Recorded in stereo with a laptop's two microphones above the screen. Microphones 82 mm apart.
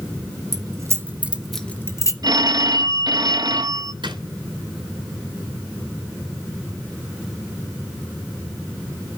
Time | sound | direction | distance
0.5 | keys jangling | 45° right (ahead or behind) | 1.0 m
2.2 | a phone ringing | 55° right (ahead or behind) | 0.8 m
4.0 | a drawer | 70° right (ahead or behind) | 3 m